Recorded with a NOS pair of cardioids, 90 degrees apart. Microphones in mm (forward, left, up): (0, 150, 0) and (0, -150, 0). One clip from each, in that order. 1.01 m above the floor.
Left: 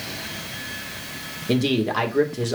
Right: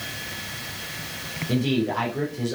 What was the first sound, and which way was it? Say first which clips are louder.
A man speaking: left 3 dB; 55° left.